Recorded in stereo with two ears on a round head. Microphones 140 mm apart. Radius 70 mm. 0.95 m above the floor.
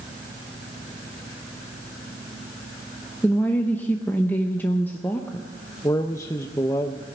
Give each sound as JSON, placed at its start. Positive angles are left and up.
{"t": 3.2, "sound": "a woman speaking", "side_deg": 15, "distance_m": 0.8}
{"t": 5.8, "sound": "a man speaking", "side_deg": 20, "distance_m": 0.6}